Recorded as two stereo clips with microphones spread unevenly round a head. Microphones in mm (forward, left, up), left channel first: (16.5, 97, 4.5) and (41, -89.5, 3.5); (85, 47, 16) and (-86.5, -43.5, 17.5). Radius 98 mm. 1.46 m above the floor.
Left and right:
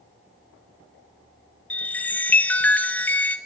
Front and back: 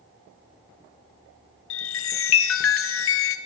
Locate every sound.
1.7 s a chime: 15° left, 0.7 m